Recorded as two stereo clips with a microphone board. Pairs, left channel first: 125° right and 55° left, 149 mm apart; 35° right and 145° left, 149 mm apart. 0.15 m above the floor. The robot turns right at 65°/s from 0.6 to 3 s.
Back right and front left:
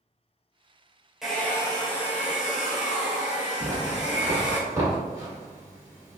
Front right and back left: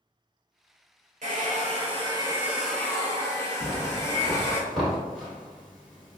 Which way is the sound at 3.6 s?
55° left.